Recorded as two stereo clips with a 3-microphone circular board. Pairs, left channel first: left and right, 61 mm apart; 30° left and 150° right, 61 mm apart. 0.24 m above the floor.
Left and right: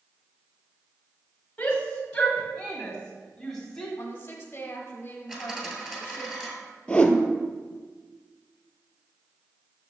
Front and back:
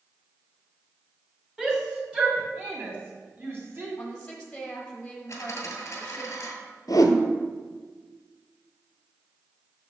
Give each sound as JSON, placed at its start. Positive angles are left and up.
{"t": 1.6, "sound": "a shout", "azimuth_deg": 130, "distance_m": 1.5}
{"t": 4.0, "sound": "a woman speaking", "azimuth_deg": 85, "distance_m": 1.0}
{"t": 5.3, "sound": "a dropped coin", "azimuth_deg": -15, "distance_m": 1.7}
{"t": 6.9, "sound": "a whoosh", "azimuth_deg": 15, "distance_m": 0.7}